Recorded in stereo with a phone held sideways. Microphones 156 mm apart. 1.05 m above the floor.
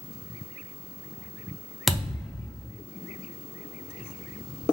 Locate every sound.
1.9 s a thud: centre (ahead or behind), 0.5 m